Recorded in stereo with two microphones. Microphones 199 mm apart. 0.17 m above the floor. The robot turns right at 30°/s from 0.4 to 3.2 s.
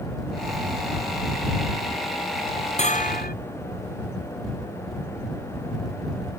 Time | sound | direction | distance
2.8 | a bell | 35° left (ahead or behind) | ?